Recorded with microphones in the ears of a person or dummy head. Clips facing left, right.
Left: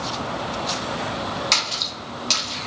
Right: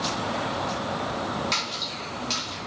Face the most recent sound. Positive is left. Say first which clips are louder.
# left 2 dB
turn(degrees=65)  # may be behind; listen again after turning